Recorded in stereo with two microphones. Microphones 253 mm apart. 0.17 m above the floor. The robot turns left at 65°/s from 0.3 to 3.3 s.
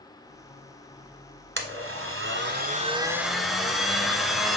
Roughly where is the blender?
Ahead right.